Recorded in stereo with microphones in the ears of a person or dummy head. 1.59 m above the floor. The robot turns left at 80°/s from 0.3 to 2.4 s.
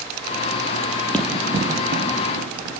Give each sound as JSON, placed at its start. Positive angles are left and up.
{"t": 1.1, "sound": "running footsteps", "side_deg": 5, "distance_m": 2.5}